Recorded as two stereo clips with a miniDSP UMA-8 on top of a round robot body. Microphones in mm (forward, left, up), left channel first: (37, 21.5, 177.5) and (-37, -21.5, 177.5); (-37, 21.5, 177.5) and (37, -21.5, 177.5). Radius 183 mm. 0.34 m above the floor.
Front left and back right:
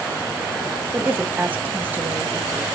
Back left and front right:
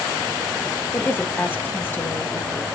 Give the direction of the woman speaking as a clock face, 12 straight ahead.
6 o'clock.